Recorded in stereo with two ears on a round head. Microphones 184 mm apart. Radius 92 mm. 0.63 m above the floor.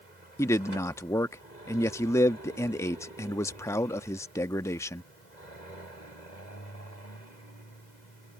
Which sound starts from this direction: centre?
A man speaking, at 0.4 s.